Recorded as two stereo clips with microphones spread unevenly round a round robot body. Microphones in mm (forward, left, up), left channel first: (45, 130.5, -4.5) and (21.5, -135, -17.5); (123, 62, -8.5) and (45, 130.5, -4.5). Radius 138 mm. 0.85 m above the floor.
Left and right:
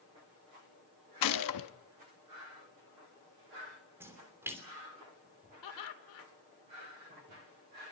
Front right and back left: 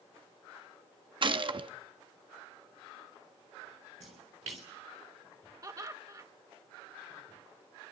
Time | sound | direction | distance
1.2 | a gunshot | 100° left | 0.9 m
4.0 | a splash | 175° right | 3 m
5.6 | laughter | 85° left | 3 m